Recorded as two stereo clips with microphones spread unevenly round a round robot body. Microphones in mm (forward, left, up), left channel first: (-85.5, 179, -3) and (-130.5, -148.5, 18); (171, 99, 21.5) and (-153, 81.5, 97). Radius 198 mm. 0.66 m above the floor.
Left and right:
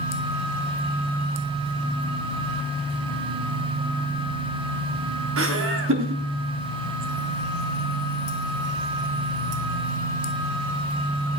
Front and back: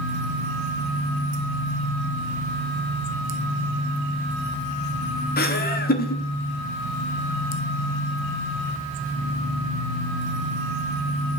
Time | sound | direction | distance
5.4 | laughter | 45° right | 1.5 m